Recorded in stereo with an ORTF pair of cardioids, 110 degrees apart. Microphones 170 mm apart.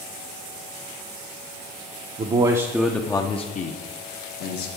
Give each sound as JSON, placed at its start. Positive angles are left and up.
{"t": 2.2, "sound": "a man speaking", "azimuth_deg": -35, "distance_m": 0.7}